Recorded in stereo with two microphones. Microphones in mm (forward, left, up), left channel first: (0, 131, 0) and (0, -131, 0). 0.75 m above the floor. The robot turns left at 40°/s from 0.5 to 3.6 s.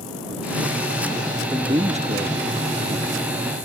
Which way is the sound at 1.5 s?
20° right.